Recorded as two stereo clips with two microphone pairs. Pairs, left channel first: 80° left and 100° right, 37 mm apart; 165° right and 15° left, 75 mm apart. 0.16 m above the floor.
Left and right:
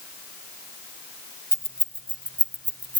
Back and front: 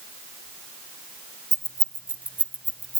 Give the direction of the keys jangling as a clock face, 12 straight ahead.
1 o'clock.